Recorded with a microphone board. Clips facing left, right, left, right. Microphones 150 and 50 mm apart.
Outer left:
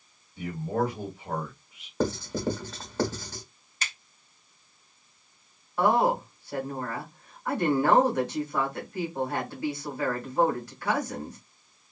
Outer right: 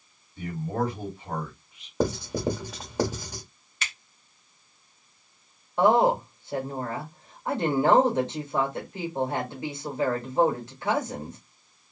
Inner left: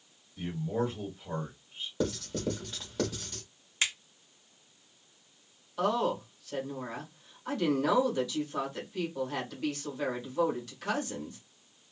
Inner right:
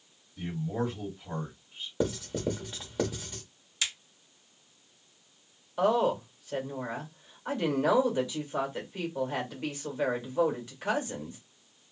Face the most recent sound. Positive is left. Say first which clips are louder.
# outer right 3 dB, inner right 3 dB
turn(degrees=-20)  # may be behind; listen again after turning